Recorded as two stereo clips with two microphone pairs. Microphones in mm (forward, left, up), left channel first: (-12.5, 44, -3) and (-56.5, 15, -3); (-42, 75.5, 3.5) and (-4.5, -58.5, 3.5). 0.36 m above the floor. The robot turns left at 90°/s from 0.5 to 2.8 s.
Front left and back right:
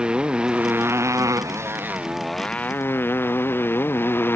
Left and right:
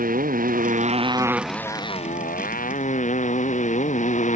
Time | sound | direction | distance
0.0 | a motorcycle | 75° right | ?